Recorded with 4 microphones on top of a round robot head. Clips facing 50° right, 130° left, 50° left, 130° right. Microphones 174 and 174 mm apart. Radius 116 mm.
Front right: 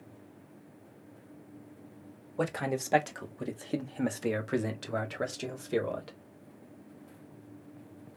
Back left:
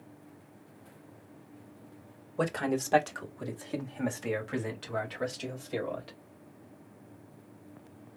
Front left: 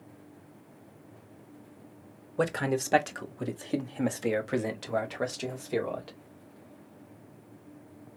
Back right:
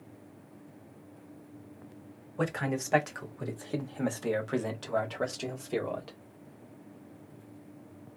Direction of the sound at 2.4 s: 35° left.